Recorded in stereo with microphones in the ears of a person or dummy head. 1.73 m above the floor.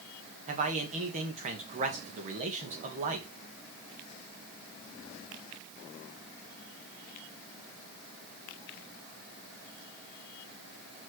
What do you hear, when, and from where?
0.5 s a man speaking: 35° right (ahead or behind), 2.5 m